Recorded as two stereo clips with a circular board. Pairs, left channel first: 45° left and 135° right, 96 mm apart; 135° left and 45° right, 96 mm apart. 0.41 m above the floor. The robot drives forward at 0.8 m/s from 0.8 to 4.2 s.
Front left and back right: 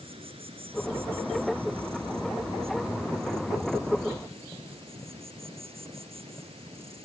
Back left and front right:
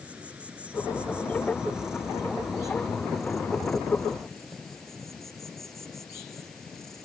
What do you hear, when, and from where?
0.0 s an insect: 125° right; by 7.0 s 140° right